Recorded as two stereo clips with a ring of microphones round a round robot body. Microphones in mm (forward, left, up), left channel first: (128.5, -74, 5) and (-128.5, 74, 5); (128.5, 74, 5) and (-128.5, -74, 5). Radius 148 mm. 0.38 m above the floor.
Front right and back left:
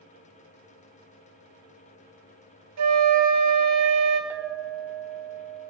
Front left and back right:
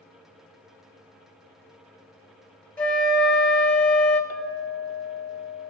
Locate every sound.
2.8 s a flute: 115° left, 2 m
4.3 s a clink: 70° left, 1.0 m